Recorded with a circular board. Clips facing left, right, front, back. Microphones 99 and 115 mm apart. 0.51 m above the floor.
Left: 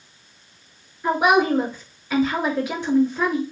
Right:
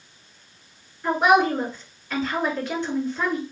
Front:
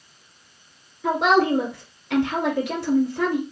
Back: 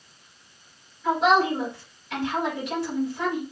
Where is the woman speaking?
15° left, 2 m.